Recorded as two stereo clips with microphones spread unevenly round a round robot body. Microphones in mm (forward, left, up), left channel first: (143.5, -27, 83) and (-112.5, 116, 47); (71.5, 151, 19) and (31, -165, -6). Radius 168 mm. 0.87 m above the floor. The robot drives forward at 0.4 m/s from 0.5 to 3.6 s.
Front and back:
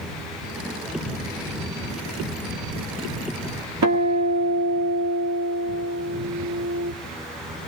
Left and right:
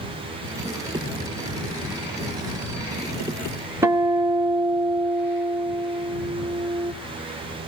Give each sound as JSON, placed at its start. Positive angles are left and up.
{"t": 3.8, "sound": "a guitar", "azimuth_deg": 180, "distance_m": 1.6}